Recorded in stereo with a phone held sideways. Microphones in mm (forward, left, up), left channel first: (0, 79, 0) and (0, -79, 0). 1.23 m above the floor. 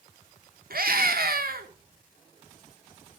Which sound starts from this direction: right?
A scream, at 0.7 s.